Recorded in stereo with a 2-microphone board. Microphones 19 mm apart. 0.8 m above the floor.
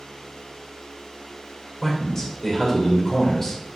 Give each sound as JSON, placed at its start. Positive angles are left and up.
{"t": 1.8, "sound": "a man speaking", "side_deg": 20, "distance_m": 2.5}